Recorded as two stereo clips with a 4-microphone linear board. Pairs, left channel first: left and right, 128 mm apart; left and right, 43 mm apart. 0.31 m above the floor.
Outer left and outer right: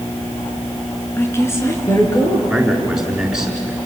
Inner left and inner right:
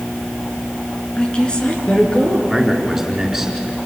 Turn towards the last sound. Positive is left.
turn(degrees=-5)  # may be behind; listen again after turning